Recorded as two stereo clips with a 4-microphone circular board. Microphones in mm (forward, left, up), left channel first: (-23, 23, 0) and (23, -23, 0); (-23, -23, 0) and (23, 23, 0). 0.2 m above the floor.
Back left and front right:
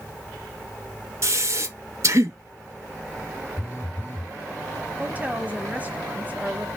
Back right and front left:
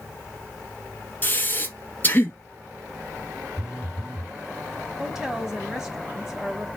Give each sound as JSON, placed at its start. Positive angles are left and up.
{"t": 1.2, "sound": "breathing", "azimuth_deg": -80, "distance_m": 0.8}
{"t": 3.6, "sound": "a phone buzzing", "azimuth_deg": 115, "distance_m": 0.8}
{"t": 5.0, "sound": "a woman speaking", "azimuth_deg": -25, "distance_m": 1.1}